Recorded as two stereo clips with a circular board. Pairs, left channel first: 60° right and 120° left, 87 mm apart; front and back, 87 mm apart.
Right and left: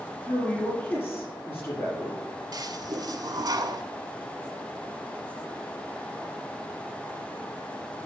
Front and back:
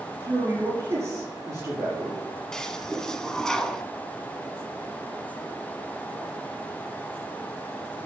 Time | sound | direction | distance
0.2 | a man speaking | 125° right | 5.5 m
2.5 | a toilet flushing | 85° left | 0.8 m